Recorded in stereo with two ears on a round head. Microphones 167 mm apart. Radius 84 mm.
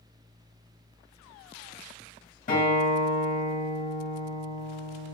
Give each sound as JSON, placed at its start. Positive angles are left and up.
{"t": 2.5, "sound": "a guitar", "side_deg": 40, "distance_m": 2.0}